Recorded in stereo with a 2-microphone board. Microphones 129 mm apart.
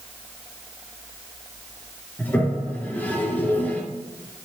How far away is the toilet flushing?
About 2 m.